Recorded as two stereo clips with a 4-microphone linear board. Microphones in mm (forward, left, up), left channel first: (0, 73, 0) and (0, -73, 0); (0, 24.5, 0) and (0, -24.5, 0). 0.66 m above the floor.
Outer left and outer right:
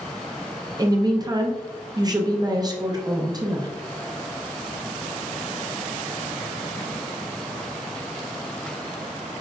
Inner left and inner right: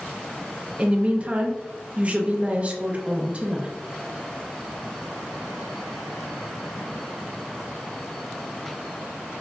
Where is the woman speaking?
30° right (ahead or behind), 0.5 m.